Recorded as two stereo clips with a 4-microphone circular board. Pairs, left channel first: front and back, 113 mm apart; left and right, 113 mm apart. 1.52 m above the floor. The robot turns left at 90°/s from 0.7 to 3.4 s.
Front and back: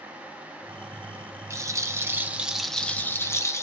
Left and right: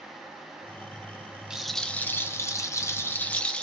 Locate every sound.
1.5 s a rattle: 165° right, 0.7 m; by 3.6 s 25° left, 0.7 m